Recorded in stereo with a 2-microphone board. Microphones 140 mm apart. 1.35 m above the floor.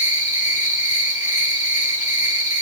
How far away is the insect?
About 4 m.